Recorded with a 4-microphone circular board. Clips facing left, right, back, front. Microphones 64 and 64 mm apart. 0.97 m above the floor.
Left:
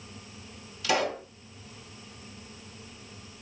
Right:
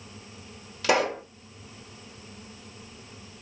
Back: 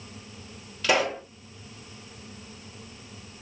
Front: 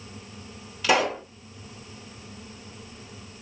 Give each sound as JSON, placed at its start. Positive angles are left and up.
{"t": 0.8, "sound": "a pop", "azimuth_deg": -85, "distance_m": 1.7}